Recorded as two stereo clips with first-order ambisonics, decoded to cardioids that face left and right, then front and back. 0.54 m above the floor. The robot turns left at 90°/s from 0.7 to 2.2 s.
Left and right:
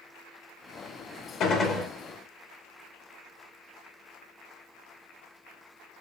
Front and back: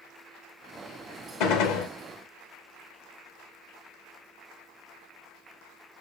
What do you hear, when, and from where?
1.4 s a gunshot: 35° left, 0.5 m; by 1.9 s 5° right, 0.5 m